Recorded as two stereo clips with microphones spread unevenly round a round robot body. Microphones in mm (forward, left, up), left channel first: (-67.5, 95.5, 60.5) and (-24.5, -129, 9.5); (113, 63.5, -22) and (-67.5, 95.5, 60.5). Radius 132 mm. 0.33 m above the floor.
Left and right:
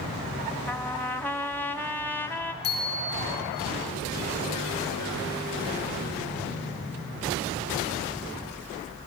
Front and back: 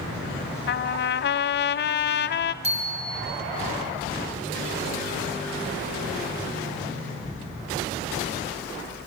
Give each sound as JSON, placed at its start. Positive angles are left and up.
{"t": 0.7, "sound": "a trumpet", "azimuth_deg": 15, "distance_m": 0.5}
{"t": 2.6, "sound": "a bicycle bell", "azimuth_deg": 115, "distance_m": 7.5}